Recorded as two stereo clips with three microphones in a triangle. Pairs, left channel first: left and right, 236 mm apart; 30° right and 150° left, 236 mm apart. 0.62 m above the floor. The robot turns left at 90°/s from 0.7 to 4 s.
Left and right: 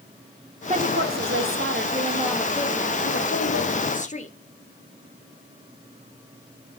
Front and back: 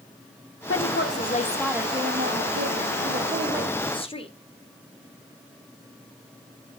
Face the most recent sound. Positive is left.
turn(degrees=35)